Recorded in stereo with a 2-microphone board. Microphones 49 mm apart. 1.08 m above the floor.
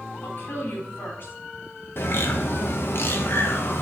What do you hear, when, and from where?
0.2 s a woman speaking: 45° left (ahead or behind), 4 m
2.0 s a bird: 50° left (ahead or behind), 1.0 m